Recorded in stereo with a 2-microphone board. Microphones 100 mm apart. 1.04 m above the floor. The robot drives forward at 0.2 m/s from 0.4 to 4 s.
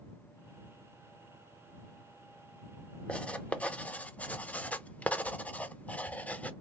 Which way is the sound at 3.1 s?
10° left (ahead or behind).